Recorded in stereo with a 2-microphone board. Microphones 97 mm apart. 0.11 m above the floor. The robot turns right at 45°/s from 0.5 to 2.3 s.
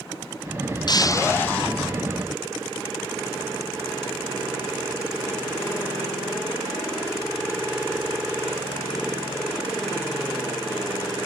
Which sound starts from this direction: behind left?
Breaking glass, at 0.9 s.